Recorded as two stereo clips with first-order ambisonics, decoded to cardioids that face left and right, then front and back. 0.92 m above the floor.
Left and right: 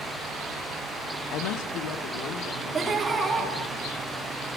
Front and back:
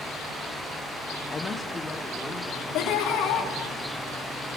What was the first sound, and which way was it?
A woman speaking, 65° left.